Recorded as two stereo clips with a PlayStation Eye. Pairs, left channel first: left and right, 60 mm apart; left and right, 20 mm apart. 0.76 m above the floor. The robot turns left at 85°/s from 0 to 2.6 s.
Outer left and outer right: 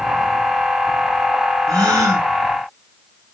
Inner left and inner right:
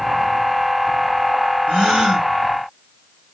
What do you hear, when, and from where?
1.7 s a gasp: 90° right, 1.7 m; by 2.3 s 140° right, 1.7 m